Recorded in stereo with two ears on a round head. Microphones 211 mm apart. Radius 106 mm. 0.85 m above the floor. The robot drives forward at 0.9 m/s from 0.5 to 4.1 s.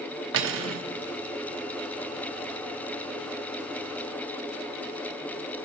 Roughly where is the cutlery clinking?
Right.